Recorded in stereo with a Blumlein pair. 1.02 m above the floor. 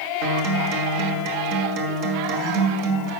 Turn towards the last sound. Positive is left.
turn(degrees=-45)